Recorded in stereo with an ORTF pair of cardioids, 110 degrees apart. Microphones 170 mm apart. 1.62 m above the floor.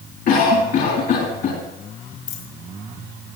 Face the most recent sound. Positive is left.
turn(degrees=55)